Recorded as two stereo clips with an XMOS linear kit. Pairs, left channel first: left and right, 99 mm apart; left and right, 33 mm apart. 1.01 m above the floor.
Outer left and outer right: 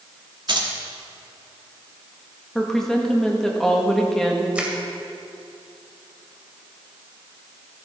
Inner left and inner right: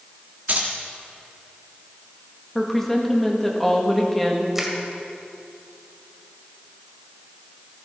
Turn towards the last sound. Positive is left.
turn(degrees=-10)  # may be behind; listen again after turning